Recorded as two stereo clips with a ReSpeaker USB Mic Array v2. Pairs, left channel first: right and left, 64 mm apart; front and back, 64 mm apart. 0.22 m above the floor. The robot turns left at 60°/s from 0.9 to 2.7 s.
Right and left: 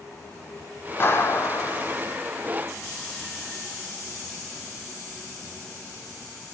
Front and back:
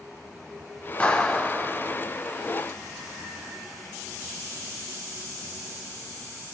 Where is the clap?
65° right, 1.6 m; by 2.0 s 125° right, 1.6 m.